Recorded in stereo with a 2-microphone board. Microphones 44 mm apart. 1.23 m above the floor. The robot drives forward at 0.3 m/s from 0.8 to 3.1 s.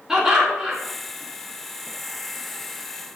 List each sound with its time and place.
0.1 s laughter: 10° right (ahead or behind), 3.5 m